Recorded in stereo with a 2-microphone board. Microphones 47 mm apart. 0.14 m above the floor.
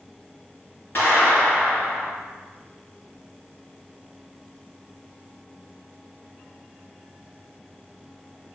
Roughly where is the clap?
Left.